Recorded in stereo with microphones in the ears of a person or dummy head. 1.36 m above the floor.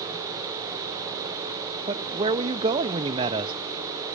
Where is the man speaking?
25° right (ahead or behind), 0.6 m.